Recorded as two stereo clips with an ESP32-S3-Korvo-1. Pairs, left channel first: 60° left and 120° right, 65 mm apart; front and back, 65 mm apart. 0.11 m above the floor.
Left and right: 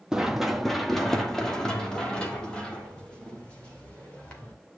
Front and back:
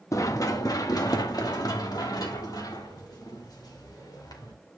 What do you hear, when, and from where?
0.1 s running footsteps: 40° right, 1.1 m; by 4.5 s 10° right, 4 m